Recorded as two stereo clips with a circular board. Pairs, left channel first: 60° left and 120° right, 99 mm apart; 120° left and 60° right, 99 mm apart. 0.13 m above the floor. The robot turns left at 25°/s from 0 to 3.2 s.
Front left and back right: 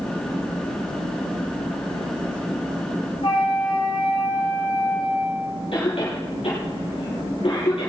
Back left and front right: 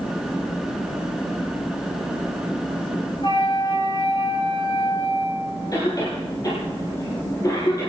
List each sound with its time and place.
3.2 s a flute: 90° left, 7.5 m
5.7 s a cough: 75° left, 4 m